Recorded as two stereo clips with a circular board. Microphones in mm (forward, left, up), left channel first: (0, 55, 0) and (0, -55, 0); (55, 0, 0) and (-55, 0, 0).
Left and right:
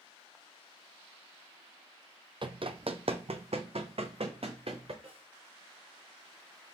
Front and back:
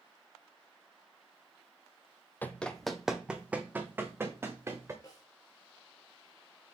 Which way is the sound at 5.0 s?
55° right.